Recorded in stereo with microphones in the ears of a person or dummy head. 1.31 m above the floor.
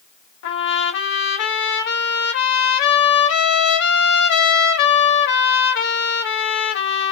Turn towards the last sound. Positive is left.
turn(degrees=65)  # may be behind; listen again after turning